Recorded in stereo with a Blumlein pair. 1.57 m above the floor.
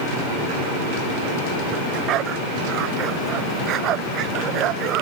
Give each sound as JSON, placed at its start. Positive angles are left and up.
{"t": 1.7, "sound": "a dog barking", "azimuth_deg": -35}